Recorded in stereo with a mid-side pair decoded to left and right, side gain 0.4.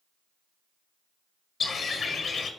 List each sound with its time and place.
1.6 s a bird: 60° left, 0.9 m